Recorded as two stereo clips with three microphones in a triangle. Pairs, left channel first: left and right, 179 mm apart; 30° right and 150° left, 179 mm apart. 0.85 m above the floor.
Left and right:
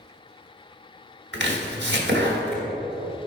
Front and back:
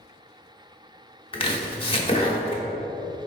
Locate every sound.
1.3 s chopping: 90° right, 0.9 m